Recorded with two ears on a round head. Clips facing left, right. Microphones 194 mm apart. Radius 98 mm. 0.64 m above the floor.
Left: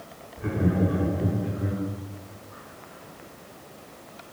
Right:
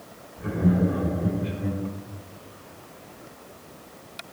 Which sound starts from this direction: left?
Laughter, at 0.4 s.